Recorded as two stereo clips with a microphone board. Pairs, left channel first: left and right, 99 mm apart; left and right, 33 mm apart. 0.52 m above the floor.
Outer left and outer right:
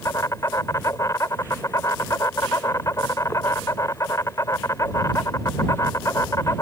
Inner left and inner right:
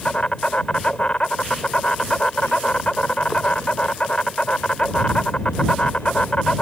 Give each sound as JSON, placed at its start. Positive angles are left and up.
{"t": 0.0, "sound": "an insect", "side_deg": 35}